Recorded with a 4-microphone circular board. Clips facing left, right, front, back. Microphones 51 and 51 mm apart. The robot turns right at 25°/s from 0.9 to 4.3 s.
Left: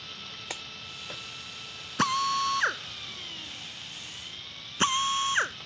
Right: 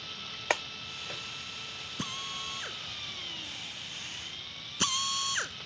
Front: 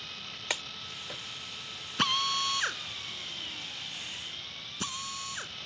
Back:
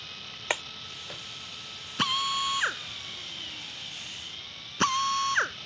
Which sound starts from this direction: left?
A drill, at 2.0 s.